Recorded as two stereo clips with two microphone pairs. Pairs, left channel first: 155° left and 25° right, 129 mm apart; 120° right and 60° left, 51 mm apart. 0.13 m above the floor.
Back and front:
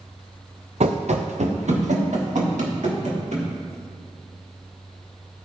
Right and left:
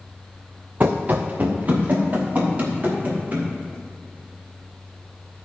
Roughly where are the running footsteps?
Ahead.